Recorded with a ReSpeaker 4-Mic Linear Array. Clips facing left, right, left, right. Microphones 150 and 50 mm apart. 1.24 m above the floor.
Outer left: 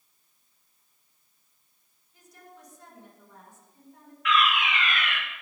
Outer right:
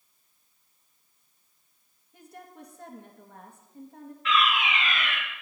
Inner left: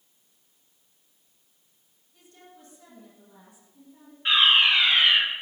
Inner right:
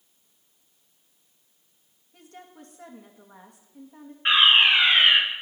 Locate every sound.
2.1 s a woman speaking: 60° right (ahead or behind), 2 m
4.2 s a fire alarm: 30° right (ahead or behind), 3 m